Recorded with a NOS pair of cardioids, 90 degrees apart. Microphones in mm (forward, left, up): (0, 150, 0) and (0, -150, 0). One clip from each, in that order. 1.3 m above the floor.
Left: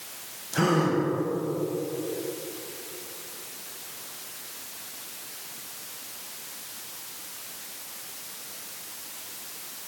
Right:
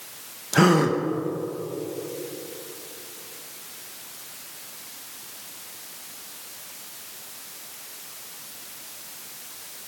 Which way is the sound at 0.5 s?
35° right.